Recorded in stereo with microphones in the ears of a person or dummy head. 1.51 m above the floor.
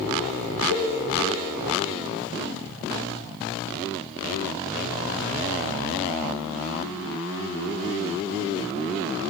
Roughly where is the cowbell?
Right.